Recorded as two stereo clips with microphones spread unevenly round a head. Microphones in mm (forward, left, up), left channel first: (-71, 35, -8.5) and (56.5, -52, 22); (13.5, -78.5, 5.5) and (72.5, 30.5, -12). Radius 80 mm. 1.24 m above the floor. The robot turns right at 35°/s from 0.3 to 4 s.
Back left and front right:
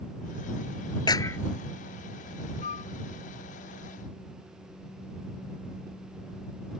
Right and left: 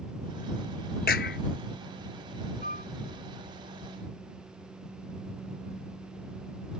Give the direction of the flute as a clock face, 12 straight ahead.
6 o'clock.